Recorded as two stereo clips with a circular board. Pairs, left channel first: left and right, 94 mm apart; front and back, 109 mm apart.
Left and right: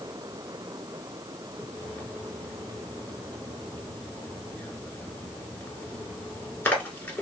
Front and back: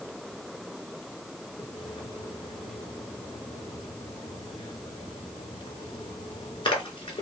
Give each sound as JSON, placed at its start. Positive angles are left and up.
{"t": 1.6, "sound": "a splash", "azimuth_deg": 25, "distance_m": 0.9}